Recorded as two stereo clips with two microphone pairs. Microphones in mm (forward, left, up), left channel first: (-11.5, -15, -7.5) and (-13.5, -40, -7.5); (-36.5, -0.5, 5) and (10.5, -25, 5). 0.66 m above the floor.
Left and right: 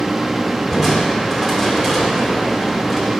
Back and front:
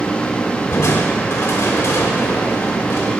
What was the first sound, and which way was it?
Crushing, 175° right.